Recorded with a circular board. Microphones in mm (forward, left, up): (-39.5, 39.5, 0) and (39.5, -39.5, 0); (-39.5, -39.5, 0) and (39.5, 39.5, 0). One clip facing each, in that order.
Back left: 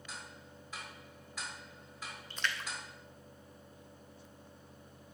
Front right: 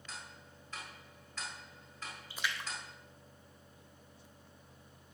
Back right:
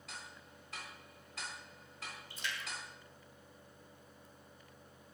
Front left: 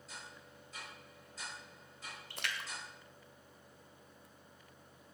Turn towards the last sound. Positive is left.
turn(degrees=35)